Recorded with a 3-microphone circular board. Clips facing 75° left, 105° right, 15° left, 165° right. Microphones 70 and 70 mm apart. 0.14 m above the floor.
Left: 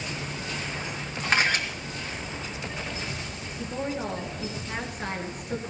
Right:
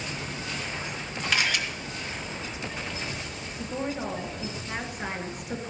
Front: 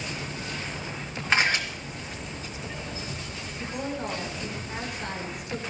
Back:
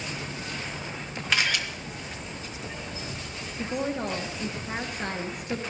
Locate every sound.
1.3 s a camera shutter: 55° left, 2.0 m
3.6 s a woman speaking: 170° left, 2 m